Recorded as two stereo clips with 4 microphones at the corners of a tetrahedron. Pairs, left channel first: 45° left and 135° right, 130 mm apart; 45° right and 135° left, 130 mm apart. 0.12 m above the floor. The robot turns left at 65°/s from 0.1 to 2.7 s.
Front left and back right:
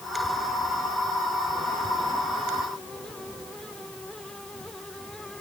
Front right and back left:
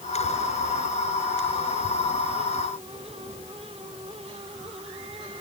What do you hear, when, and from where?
Only background noise.